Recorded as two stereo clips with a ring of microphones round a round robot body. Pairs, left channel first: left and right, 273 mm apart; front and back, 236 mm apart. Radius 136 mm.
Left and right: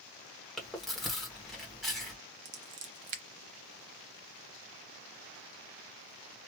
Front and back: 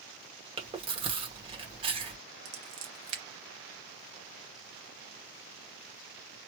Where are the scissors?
140° right, 0.7 m.